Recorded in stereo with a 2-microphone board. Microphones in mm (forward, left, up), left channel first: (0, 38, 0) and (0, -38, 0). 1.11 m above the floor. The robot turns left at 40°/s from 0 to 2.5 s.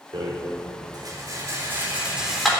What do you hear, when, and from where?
0.1 s a rattle: 80° right, 4 m; by 2.5 s centre (ahead or behind), 4 m